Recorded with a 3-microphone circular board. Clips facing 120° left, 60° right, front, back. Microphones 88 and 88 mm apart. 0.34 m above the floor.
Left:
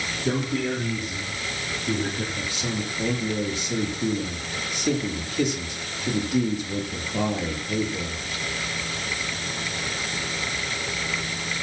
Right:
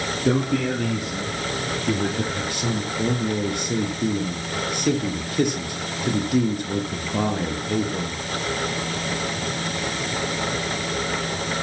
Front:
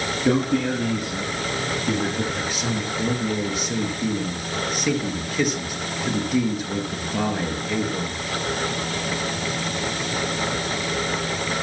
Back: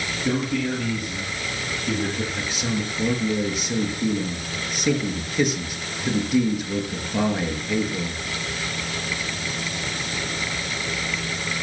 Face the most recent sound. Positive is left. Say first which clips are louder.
# right 4 dB, front 1 dB
turn(degrees=-90)